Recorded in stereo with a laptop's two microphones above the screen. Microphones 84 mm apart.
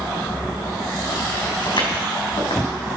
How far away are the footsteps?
About 3 m.